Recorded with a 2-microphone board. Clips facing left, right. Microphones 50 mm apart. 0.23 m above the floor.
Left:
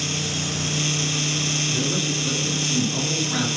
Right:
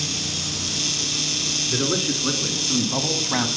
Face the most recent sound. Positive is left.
turn(degrees=-35)  # may be behind; listen again after turning